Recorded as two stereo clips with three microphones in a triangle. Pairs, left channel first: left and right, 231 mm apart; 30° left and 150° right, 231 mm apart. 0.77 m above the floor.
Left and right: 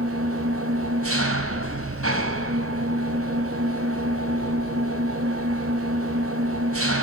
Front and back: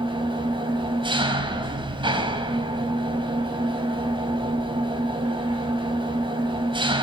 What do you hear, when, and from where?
0.0 s an engine running: 80° right, 3.5 m